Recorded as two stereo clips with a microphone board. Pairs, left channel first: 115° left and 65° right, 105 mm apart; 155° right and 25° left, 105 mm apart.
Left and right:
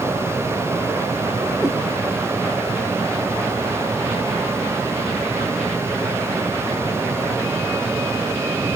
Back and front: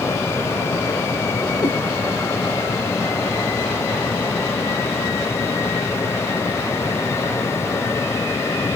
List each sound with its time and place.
1.6 s a cat meowing: 155° right, 1.3 m